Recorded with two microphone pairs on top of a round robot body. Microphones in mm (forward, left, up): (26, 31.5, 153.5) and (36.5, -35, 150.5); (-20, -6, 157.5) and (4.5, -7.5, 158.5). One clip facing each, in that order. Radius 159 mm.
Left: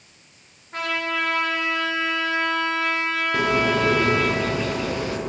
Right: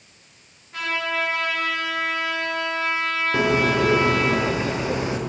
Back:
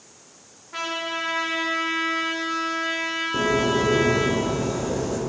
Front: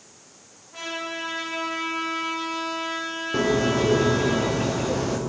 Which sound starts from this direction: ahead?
A bird, at 3.3 s.